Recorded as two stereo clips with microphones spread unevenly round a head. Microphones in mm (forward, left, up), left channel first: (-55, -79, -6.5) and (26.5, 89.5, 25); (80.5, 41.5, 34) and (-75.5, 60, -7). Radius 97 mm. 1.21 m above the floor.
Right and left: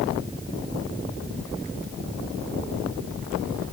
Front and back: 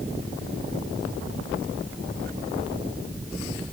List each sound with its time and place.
Only background noise.